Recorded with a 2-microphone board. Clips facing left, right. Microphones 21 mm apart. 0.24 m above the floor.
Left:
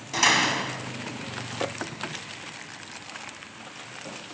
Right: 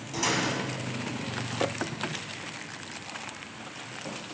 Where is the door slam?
45° left (ahead or behind), 1.0 m.